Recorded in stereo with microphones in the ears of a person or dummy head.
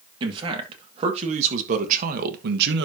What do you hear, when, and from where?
0.2 s a man speaking: 25° right (ahead or behind), 2.5 m; by 2.9 s 65° right (ahead or behind), 1.2 m